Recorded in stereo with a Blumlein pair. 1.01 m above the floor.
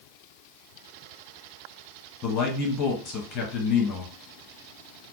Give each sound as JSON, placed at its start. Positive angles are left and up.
{"t": 2.2, "sound": "a man speaking", "azimuth_deg": 35, "distance_m": 0.9}